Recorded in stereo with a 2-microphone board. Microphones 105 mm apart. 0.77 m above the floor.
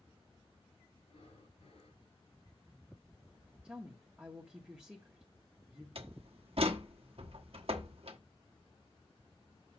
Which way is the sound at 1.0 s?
70° left (ahead or behind).